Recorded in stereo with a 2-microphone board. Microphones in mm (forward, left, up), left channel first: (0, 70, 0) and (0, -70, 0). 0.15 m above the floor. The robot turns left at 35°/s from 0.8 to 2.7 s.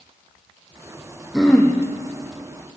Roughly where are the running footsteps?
No running footsteps in this recording.